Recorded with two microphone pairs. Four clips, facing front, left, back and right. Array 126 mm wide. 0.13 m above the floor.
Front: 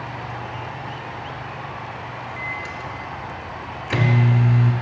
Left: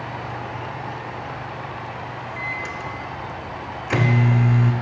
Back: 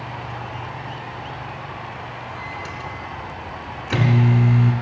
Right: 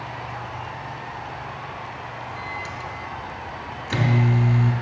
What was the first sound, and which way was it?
A microwave, 105° left.